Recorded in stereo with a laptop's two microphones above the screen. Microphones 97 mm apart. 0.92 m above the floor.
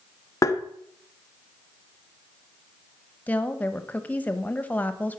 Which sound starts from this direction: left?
Tapping, at 0.4 s.